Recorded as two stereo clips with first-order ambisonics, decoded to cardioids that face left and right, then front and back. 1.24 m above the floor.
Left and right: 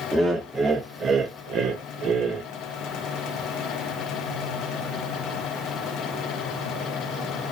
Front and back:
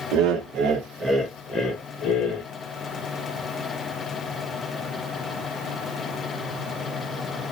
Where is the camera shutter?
I don't hear a camera shutter.